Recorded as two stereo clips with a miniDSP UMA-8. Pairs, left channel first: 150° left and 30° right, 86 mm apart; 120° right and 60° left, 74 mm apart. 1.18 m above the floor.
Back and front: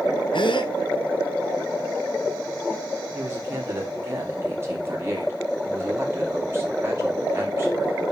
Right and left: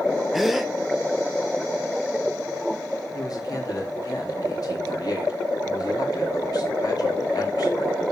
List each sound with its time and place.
0.3 s a gasp: 150° left, 0.8 m
3.1 s a man speaking: 90° right, 2.5 m